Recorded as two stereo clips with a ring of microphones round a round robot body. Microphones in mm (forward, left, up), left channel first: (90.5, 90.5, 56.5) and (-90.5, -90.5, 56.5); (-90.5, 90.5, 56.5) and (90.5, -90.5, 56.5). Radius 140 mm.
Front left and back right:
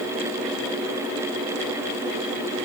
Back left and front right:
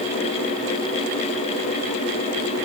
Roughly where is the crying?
I don't hear crying.